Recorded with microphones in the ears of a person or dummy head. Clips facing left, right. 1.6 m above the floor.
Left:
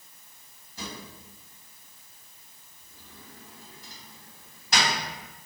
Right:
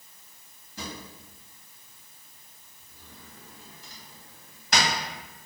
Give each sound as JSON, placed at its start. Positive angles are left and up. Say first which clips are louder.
{"t": 0.8, "sound": "a drawer", "louder": "right 1 dB", "side_deg": -60, "distance_m": 1.5}